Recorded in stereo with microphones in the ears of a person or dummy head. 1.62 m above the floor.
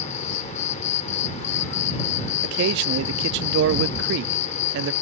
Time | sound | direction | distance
0.0 | an insect | 40° left (ahead or behind) | ?
2.4 | a man speaking | 65° right (ahead or behind) | ?